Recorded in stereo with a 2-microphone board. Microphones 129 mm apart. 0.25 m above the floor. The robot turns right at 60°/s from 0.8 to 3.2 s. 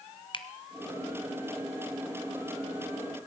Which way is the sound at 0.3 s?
40° left (ahead or behind).